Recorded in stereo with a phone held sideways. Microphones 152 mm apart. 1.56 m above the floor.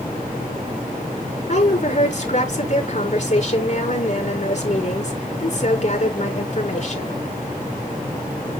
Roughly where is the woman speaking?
Left.